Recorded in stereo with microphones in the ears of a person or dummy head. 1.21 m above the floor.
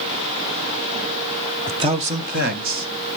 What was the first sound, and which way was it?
A man speaking, 15° right (ahead or behind).